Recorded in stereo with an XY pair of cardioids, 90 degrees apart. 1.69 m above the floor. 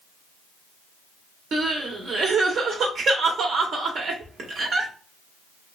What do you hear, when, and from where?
1.5 s crying: 70° right, 0.9 m